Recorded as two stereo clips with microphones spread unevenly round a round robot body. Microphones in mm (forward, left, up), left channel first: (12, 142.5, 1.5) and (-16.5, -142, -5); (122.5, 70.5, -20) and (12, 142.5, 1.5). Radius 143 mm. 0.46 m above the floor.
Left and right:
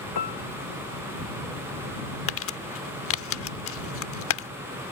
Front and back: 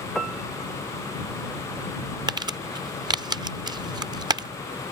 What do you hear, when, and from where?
0.1 s a piano: 55° left
2.3 s crumpling: 90° left